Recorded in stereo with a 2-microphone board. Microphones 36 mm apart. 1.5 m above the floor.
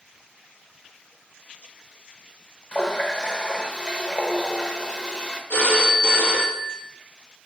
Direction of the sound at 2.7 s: 30° left (ahead or behind).